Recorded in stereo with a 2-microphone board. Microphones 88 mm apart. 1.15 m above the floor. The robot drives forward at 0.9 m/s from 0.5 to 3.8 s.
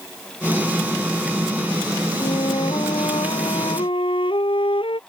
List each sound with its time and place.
2.2 s a flute: 80° left; by 5.0 s 75° left (ahead or behind)